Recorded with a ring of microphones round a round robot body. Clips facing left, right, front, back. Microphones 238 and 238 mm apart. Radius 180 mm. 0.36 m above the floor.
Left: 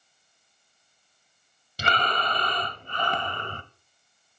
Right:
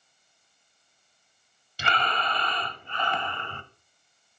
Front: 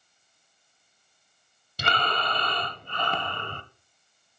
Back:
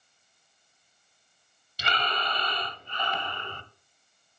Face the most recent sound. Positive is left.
turn(degrees=40)